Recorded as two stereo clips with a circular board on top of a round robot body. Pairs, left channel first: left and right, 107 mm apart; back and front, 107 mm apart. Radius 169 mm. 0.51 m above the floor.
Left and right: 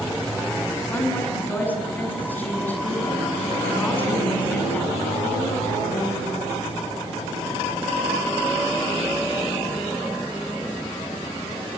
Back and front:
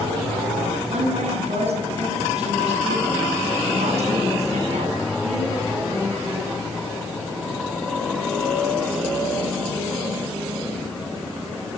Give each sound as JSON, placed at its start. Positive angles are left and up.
{"t": 0.9, "sound": "a woman speaking", "azimuth_deg": 15, "distance_m": 8.0}